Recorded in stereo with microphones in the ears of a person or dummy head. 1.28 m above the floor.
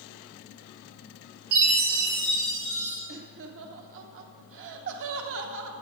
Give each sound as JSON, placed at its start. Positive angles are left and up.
{"t": 1.5, "sound": "a chime", "side_deg": -50, "distance_m": 2.5}
{"t": 3.1, "sound": "laughter", "side_deg": -75, "distance_m": 0.8}